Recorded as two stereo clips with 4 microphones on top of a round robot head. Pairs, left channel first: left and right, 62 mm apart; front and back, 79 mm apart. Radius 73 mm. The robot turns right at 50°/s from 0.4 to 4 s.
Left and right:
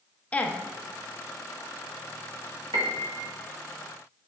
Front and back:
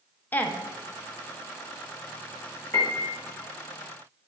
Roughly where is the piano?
Right.